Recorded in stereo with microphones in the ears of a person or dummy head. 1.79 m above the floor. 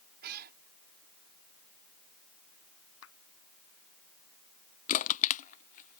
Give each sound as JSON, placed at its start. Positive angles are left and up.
{"t": 0.2, "sound": "a cat meowing", "side_deg": -50}
{"t": 3.0, "sound": "a clap", "side_deg": 80}
{"t": 4.9, "sound": "crushing", "side_deg": 40}